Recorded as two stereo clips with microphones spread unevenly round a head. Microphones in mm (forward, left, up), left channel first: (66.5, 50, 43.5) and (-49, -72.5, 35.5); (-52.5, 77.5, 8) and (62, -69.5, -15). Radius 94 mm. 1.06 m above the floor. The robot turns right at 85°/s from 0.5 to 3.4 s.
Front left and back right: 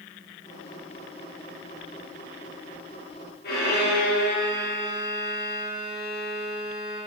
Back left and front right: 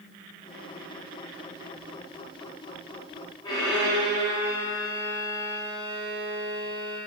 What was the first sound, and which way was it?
A violin, 55° left.